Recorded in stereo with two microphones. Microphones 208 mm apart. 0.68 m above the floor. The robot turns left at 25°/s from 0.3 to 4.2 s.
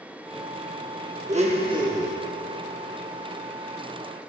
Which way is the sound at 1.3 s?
35° right (ahead or behind).